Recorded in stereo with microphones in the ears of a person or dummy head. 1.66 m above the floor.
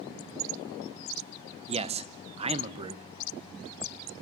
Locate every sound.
1.7 s a man speaking: 30° right (ahead or behind), 0.8 m